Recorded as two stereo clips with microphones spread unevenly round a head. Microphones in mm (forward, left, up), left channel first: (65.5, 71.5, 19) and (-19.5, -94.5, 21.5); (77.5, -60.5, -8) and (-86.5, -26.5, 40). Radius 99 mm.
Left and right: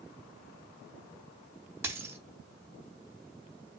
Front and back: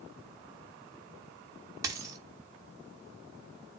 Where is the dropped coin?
175° left, 0.9 m.